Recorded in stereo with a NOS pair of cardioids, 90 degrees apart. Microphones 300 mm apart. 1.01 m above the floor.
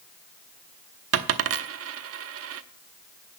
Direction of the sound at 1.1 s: 55° right.